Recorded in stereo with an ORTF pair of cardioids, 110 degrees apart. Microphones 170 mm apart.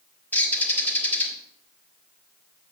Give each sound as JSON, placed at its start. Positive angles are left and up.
{"t": 0.3, "sound": "a bird", "azimuth_deg": 10, "distance_m": 1.8}